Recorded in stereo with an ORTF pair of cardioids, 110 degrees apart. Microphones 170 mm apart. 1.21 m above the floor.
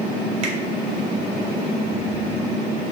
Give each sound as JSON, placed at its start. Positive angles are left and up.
{"t": 0.4, "sound": "a finger snap", "azimuth_deg": -45, "distance_m": 3.0}